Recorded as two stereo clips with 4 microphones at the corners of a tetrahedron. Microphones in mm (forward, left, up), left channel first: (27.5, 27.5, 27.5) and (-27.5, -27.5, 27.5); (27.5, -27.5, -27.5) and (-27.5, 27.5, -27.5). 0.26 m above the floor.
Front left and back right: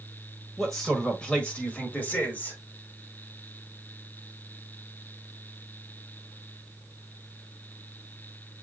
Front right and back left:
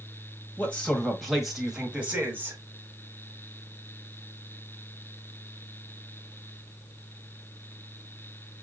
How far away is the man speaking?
About 1.3 m.